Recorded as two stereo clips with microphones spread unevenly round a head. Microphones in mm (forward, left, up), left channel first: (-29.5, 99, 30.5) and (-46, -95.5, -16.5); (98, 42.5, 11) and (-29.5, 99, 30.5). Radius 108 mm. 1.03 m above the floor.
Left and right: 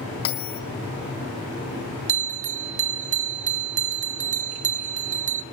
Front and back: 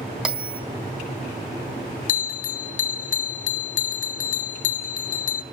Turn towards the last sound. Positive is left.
turn(degrees=-45)